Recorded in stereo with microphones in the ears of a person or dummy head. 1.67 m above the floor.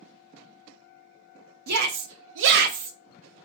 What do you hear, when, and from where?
1.7 s a shout: 50° right (ahead or behind), 0.6 m; by 3.0 s 40° right (ahead or behind), 0.6 m